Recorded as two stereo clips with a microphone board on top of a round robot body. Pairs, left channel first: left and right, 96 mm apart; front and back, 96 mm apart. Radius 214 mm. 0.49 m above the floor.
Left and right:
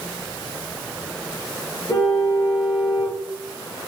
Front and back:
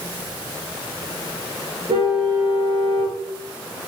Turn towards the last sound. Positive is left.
turn(degrees=150)